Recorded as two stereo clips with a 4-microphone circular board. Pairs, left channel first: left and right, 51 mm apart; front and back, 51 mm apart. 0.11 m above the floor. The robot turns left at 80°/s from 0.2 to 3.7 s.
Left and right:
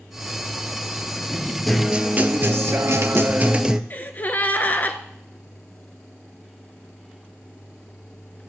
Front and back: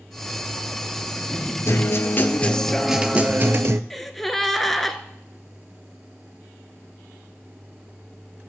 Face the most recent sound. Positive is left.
turn(degrees=85)